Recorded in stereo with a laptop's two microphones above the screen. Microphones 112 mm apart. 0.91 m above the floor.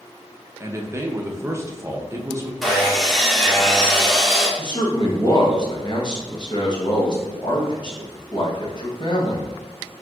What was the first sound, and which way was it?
A man speaking, 25° right (ahead or behind).